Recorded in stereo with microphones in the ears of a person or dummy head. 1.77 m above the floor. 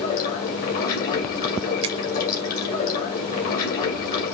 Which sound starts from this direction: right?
A finger snap, at 1.8 s.